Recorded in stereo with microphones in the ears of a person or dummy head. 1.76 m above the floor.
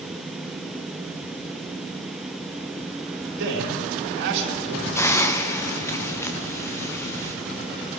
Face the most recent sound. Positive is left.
turn(degrees=15)  # may be behind; listen again after turning